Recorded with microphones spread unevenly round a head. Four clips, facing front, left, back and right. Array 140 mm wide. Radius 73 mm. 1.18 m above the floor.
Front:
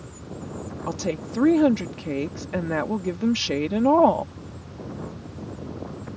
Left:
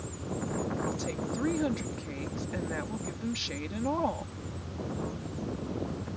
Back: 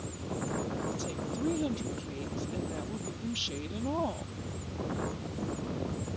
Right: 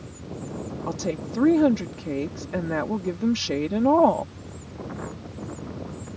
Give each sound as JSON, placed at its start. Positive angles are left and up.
{"t": 0.9, "sound": "a woman speaking", "azimuth_deg": -45}